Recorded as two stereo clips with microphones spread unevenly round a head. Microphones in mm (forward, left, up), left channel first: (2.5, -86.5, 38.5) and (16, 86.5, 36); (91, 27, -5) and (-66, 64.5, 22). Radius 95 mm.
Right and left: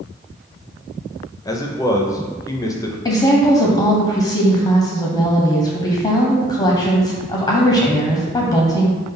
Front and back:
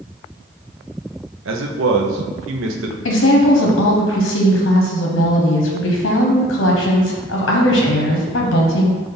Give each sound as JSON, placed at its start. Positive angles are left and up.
{"t": 1.4, "sound": "a man speaking", "azimuth_deg": -165, "distance_m": 0.6}
{"t": 3.0, "sound": "a woman speaking", "azimuth_deg": -30, "distance_m": 0.7}